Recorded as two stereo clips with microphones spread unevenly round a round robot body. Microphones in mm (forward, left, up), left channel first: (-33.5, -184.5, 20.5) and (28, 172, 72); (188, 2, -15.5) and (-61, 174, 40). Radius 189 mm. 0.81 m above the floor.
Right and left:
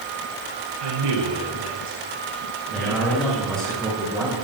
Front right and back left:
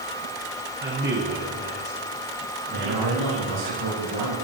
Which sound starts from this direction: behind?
A man speaking, at 2.7 s.